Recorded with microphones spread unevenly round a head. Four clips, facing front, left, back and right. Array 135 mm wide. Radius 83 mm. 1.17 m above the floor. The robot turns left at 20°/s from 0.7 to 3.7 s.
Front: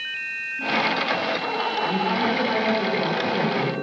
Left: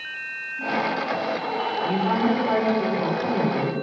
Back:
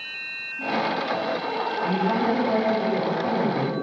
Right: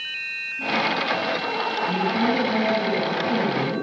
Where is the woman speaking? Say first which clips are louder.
Left 1 dB, back 2 dB; 135° left, 8.5 m; by 3.8 s 100° left, 8.5 m.